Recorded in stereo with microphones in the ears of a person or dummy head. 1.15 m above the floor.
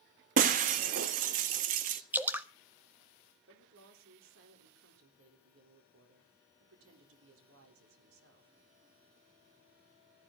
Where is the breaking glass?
50° right (ahead or behind), 0.9 m.